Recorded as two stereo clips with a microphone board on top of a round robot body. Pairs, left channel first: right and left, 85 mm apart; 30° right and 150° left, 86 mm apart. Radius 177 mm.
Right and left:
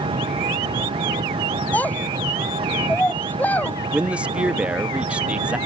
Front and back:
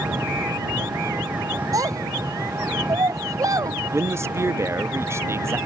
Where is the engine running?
80° left.